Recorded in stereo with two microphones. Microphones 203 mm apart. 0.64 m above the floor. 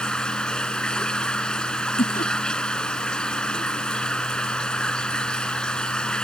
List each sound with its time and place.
0.0 s running water: 5° left (ahead or behind)
2.0 s laughter: 45° left (ahead or behind)